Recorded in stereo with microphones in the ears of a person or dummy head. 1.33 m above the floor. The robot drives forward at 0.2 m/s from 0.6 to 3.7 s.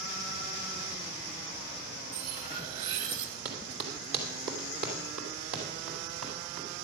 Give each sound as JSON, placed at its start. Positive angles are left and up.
{"t": 2.1, "sound": "cutlery clinking", "side_deg": -45, "distance_m": 2.5}
{"t": 3.5, "sound": "running footsteps", "side_deg": -55, "distance_m": 2.0}